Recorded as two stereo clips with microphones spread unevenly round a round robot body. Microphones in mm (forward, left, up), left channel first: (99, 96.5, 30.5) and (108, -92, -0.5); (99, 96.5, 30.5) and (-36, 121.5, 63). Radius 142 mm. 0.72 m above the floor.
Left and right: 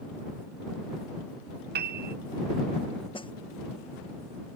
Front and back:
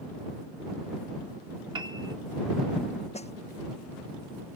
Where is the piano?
120° right.